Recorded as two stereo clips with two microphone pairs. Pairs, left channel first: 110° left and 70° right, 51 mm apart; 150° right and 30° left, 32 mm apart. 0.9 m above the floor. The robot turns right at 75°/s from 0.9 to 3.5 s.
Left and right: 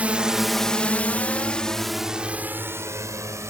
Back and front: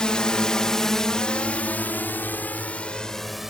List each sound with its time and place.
0.0 s a drone: 105° right; by 3.5 s 50° right